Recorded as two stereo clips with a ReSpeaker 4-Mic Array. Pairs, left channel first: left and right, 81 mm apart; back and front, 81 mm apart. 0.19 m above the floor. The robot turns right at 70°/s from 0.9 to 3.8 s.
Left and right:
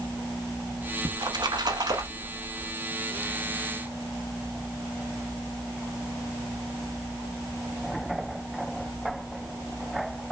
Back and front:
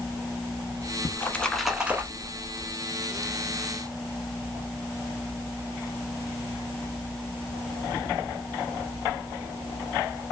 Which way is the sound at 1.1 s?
130° right.